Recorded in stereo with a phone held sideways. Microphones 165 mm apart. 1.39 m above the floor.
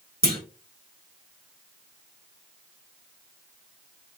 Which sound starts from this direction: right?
A clunk, at 0.2 s.